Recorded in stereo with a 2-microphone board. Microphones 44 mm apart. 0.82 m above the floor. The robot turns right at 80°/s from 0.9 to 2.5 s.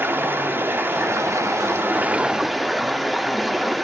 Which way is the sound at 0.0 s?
130° right.